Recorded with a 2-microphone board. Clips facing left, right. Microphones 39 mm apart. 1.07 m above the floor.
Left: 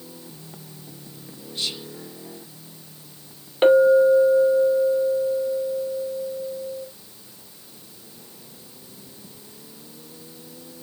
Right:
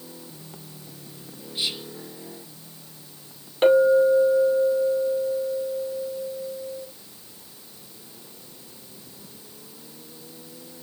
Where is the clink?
10° left (ahead or behind), 2.5 m.